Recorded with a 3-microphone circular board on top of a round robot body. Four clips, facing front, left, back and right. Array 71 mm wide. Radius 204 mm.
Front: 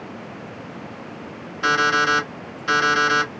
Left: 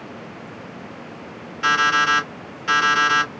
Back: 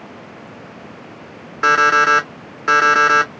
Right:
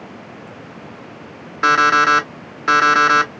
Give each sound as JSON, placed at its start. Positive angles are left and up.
{"t": 1.6, "sound": "an alarm clock", "azimuth_deg": -130, "distance_m": 1.5}